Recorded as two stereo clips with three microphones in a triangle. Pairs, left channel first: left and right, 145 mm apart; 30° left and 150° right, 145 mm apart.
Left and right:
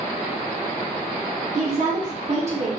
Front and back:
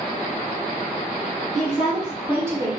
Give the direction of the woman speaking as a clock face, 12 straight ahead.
2 o'clock.